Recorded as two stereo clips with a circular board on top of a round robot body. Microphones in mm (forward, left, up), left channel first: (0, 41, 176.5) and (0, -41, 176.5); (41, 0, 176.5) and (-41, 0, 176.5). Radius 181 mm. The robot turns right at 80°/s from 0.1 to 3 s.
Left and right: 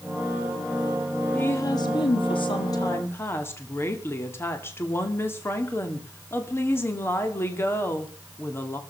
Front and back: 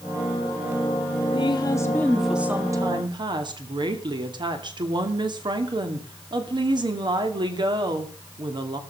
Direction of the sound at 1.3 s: 20° left.